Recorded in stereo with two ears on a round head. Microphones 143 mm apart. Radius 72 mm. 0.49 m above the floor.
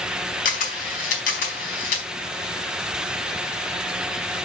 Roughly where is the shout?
No shout in this recording.